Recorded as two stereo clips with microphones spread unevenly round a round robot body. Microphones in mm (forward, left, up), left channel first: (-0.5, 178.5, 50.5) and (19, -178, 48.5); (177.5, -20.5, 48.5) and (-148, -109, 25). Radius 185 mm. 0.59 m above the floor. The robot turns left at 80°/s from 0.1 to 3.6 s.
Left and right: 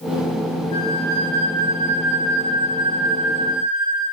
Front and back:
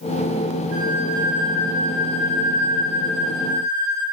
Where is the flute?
170° left, 9 m; by 4.0 s 60° right, 9 m.